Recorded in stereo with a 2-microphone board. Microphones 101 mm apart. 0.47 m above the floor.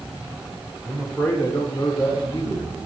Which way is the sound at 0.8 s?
Centre (ahead or behind).